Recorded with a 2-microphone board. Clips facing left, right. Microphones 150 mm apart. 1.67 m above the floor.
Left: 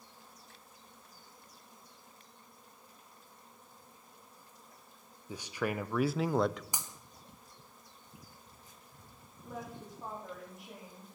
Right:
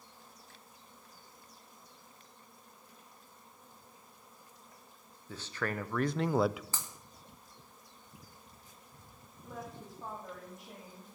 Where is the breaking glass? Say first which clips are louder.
Even; 15° left (ahead or behind), 2 m.